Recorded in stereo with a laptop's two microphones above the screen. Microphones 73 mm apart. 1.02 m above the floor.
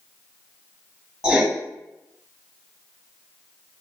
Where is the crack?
I don't hear a crack.